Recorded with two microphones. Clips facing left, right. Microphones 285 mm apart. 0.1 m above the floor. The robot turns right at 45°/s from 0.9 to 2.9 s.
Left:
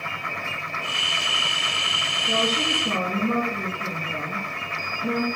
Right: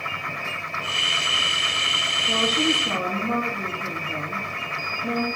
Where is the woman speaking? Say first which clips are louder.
Right 3 dB; 25° left (ahead or behind), 4 m; by 5.2 s 50° left (ahead or behind), 4 m.